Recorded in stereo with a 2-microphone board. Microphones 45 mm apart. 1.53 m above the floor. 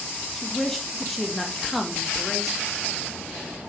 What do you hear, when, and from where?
0.4 s a woman speaking: 5° left (ahead or behind), 1.8 m